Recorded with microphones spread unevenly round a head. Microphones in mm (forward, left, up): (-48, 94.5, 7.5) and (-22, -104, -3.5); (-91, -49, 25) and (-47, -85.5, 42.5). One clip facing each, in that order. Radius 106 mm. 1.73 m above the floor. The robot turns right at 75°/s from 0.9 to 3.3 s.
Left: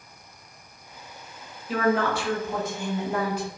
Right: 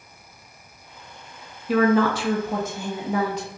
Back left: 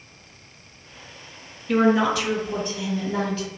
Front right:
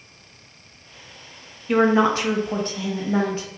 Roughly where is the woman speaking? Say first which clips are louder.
Right 5 dB, front right 2 dB; right.